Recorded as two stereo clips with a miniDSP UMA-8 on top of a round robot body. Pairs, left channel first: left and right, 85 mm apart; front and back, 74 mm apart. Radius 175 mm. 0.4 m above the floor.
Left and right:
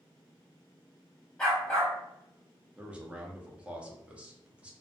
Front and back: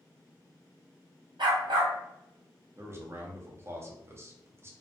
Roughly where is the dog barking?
Behind.